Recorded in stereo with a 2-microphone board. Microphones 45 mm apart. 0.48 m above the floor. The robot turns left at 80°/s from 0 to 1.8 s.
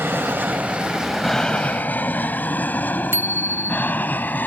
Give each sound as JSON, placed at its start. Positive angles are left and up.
{"t": 0.0, "sound": "an aircraft", "side_deg": -60}
{"t": 3.1, "sound": "a bicycle bell", "side_deg": -65}